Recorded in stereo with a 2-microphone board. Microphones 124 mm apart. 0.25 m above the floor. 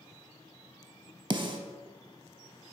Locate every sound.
1.3 s a snare drum: 35° right (ahead or behind), 0.5 m